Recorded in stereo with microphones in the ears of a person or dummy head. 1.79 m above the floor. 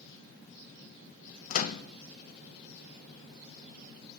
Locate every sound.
1.5 s a microwave: 40° left (ahead or behind), 0.7 m